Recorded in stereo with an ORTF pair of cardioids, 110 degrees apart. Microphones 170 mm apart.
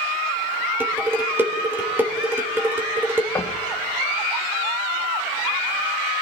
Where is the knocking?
15° left, 1.7 m.